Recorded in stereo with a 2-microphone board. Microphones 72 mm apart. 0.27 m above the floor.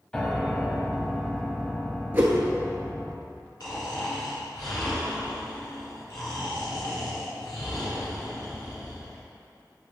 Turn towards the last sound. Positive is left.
turn(degrees=70)  # may be behind; listen again after turning